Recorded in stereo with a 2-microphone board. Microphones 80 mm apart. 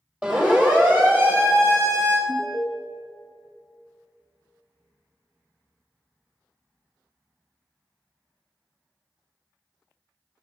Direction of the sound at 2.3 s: 15° left (ahead or behind).